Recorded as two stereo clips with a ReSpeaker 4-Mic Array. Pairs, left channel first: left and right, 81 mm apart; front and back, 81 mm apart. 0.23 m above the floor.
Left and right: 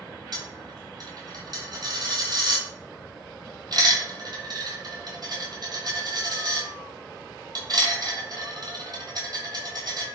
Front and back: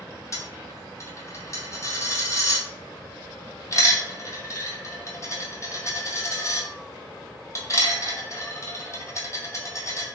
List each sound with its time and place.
0.3 s a dropped coin: 50° right, 1.1 m